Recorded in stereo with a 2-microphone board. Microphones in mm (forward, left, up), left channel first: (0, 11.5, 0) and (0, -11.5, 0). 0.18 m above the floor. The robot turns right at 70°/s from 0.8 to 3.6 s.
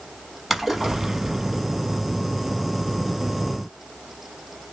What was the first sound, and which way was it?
A splash, 170° right.